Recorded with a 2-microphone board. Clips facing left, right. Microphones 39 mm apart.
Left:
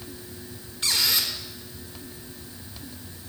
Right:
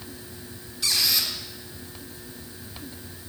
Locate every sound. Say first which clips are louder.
0.8 s a squeak: even; 45° left (ahead or behind), 1.3 m